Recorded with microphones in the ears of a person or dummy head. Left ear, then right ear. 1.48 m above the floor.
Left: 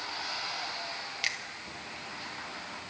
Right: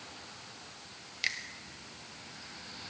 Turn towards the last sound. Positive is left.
turn(degrees=5)  # may be behind; listen again after turning